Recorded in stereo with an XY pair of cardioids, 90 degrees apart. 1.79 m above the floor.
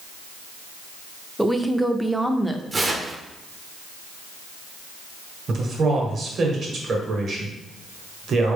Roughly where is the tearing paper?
Ahead right.